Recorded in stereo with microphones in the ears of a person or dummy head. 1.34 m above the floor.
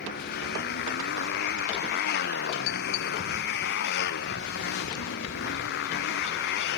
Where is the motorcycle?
55° left (ahead or behind); by 6.8 s 60° left (ahead or behind).